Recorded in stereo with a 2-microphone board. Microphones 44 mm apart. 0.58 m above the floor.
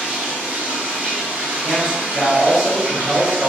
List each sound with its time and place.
0.0 s running water: 45° right (ahead or behind), 1.5 m
1.6 s a man speaking: 20° right (ahead or behind), 0.8 m